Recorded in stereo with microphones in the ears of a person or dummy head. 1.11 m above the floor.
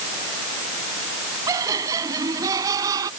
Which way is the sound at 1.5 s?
20° right (ahead or behind).